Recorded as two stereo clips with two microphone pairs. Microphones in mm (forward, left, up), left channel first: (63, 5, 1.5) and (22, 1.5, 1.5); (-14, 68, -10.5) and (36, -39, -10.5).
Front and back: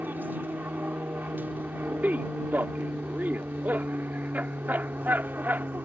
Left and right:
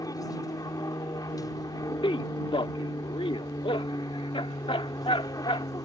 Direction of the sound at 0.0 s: 165° left.